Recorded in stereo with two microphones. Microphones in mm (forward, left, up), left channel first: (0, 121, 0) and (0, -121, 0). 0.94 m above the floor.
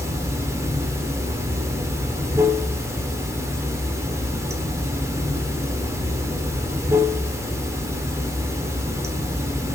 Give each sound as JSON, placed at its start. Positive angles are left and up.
{"t": 0.0, "sound": "running water", "side_deg": -10, "distance_m": 1.4}